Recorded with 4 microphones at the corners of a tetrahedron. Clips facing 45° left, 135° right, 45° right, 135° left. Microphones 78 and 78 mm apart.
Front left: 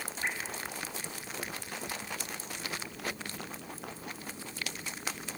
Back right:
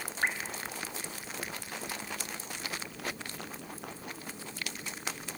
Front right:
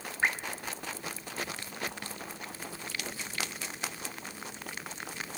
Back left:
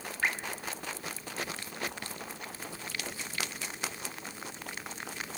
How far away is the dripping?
About 2.0 m.